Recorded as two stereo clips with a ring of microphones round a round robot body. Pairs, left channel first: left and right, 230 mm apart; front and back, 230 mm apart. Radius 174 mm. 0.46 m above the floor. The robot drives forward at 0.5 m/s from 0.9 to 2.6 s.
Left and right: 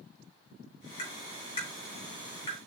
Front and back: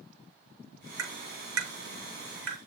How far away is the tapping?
About 5 m.